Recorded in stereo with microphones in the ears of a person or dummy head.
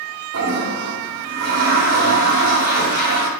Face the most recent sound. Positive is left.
turn(degrees=-55)  # may be behind; listen again after turning